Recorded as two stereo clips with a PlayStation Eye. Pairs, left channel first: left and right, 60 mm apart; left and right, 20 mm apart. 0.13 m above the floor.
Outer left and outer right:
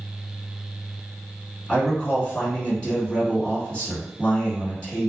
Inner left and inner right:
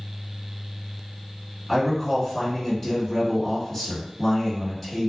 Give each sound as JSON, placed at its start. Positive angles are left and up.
{"t": 1.7, "sound": "a man speaking", "side_deg": 20, "distance_m": 1.6}